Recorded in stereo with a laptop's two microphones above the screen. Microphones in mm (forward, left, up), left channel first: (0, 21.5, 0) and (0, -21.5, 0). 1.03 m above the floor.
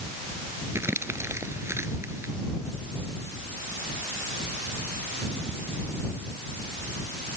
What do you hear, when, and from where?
0.8 s crumpling: 80° right